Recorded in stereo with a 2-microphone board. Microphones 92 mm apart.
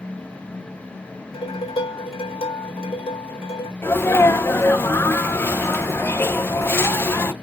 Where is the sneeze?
25° left (ahead or behind), 0.7 m.